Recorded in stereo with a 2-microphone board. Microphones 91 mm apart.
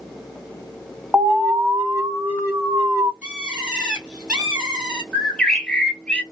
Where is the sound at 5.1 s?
10° left (ahead or behind), 1.1 m.